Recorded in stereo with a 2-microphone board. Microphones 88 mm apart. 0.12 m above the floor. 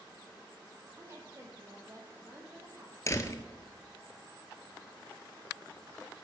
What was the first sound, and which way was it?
A woman speaking, 35° right (ahead or behind).